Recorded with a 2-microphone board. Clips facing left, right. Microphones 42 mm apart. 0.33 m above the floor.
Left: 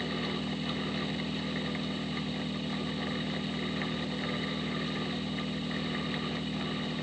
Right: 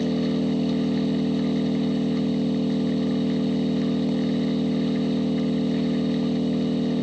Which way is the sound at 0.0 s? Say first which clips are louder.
Right 11 dB; 80° right.